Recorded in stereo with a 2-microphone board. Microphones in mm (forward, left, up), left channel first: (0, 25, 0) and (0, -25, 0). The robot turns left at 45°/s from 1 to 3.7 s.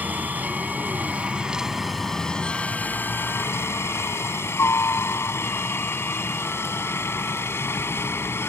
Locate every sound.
0.0 s a helicopter: 35° right (ahead or behind); by 8.5 s 60° left (ahead or behind)